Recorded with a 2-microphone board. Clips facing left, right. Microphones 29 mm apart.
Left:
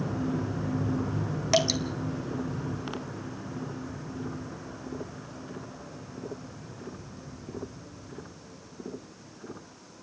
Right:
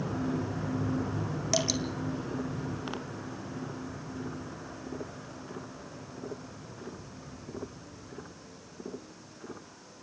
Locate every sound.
1.5 s dripping: 25° left (ahead or behind), 1.6 m